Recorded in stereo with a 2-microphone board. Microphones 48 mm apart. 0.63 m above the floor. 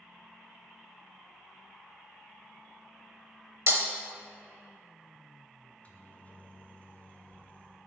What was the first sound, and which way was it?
Breaking glass, 55° right (ahead or behind).